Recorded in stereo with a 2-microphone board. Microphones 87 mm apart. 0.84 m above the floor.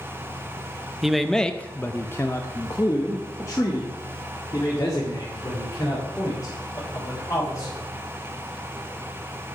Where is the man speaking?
5° right (ahead or behind), 0.7 m; by 7.8 s 35° left (ahead or behind), 4 m.